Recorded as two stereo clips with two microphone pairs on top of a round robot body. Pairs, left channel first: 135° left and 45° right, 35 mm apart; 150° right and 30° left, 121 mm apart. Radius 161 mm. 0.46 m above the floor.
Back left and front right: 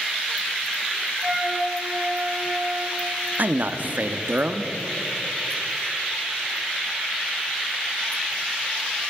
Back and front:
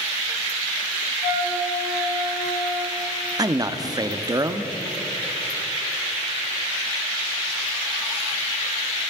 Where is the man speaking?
20° right, 0.9 m.